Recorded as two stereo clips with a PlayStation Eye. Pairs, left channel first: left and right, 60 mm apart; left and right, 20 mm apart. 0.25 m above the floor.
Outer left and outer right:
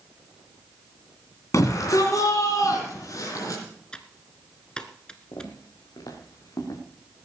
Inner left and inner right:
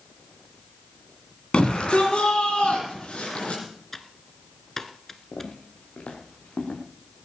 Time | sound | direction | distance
1.5 | a shout | 60° left (ahead or behind) | 3 m
3.9 | typing on a keyboard | 15° left (ahead or behind) | 1.2 m
5.3 | footsteps | 85° left | 4 m